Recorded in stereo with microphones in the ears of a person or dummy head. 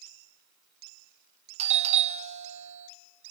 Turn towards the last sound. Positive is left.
turn(degrees=-30)  # may be behind; listen again after turning